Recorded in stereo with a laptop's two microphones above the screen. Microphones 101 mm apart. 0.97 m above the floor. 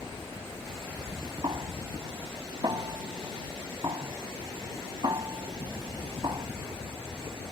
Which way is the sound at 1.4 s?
45° right (ahead or behind).